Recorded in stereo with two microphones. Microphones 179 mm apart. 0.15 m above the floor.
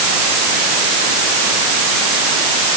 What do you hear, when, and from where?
Only background noise.